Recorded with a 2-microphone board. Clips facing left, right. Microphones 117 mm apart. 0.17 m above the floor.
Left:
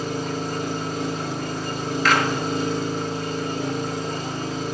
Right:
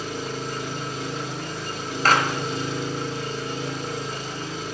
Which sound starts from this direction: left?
An engine running, at 0.0 s.